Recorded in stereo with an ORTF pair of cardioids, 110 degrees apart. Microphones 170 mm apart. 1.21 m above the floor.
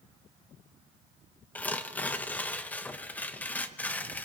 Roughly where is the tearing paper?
Ahead.